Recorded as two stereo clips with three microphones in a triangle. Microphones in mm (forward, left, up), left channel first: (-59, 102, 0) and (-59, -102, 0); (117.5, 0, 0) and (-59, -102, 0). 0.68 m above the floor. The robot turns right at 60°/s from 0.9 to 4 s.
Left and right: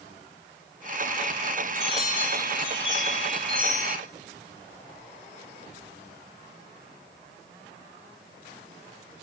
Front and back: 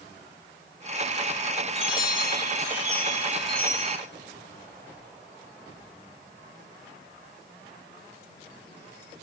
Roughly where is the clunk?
No clunk in this recording.